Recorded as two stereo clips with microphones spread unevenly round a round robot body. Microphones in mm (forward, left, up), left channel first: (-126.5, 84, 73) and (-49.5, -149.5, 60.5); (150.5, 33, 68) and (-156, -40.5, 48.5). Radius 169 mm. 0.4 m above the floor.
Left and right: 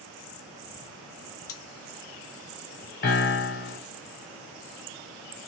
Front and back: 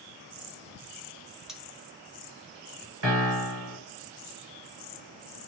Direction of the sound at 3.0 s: 150° left.